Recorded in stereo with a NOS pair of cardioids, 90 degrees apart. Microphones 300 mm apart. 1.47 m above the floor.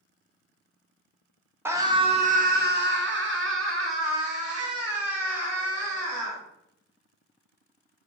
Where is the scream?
10° right, 0.8 m; by 6.4 s 55° right, 3 m.